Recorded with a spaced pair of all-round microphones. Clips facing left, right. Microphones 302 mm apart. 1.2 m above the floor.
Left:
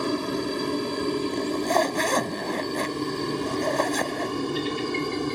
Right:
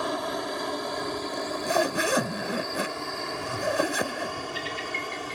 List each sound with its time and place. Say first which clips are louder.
0.0 s a helicopter: left 6 dB; 35° left (ahead or behind); by 5.3 s 50° left (ahead or behind)
1.3 s a zipper: left 4 dB; 10° right (ahead or behind)